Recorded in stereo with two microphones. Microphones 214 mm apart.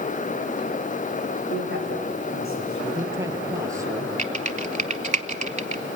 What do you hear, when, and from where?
1.5 s a man speaking: 70° left (ahead or behind), 6.5 m; by 3.3 s 80° left, 8 m
2.8 s a man speaking: 15° right (ahead or behind), 2.5 m
4.2 s typing on a keyboard: 35° right (ahead or behind), 0.8 m